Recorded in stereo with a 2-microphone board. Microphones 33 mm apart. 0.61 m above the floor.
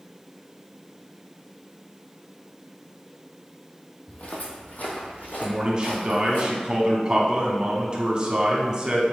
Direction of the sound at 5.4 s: 25° right (ahead or behind).